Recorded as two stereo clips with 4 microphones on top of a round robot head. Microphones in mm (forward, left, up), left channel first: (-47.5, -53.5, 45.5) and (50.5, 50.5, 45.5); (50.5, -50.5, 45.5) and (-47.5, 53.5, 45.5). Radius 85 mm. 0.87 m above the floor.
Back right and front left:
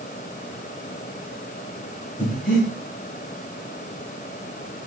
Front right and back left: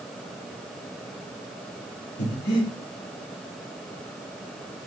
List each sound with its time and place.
2.2 s breathing: 50° right, 5 m